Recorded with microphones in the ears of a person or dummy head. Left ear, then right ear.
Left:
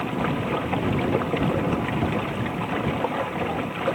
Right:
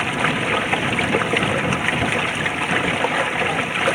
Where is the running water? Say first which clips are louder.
Right 7 dB; 70° right (ahead or behind).